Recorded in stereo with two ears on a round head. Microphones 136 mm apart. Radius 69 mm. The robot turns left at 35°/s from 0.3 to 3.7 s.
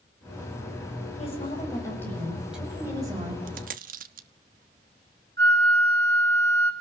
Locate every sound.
1.2 s a woman speaking: 45° left, 8.5 m; by 3.4 s 35° right, 8.5 m
3.5 s a dropped coin: 55° right (ahead or behind), 1.2 m; by 4.3 s 60° right (ahead or behind), 1.2 m
5.4 s a flute: 70° right (ahead or behind), 3 m